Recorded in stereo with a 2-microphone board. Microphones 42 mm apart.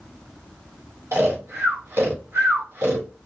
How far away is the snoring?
About 1.7 m.